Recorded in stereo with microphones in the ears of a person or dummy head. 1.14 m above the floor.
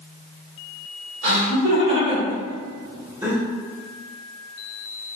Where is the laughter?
70° right (ahead or behind), 1.8 m; by 3.4 s 5° right (ahead or behind), 0.8 m.